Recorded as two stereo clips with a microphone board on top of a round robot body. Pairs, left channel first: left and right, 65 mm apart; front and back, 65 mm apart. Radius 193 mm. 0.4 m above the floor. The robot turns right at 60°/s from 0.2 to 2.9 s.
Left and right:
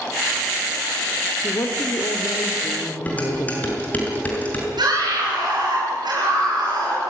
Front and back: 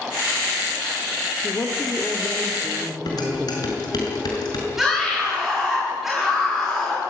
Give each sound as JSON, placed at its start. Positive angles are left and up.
{"t": 1.4, "sound": "a woman speaking", "azimuth_deg": 45, "distance_m": 2.0}
{"t": 3.1, "sound": "dishes clattering", "azimuth_deg": 25, "distance_m": 6.0}
{"t": 4.8, "sound": "a scream", "azimuth_deg": -95, "distance_m": 9.5}